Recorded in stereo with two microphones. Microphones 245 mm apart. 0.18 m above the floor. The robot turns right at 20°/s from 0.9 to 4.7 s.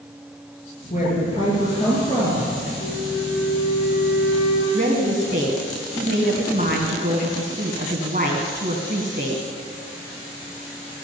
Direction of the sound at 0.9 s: 145° left.